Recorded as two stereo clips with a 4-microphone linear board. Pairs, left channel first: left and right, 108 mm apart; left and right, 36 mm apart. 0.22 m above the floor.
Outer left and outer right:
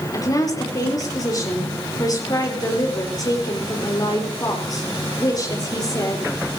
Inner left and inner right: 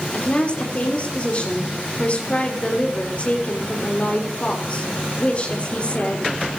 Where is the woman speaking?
35° left (ahead or behind), 4.5 m.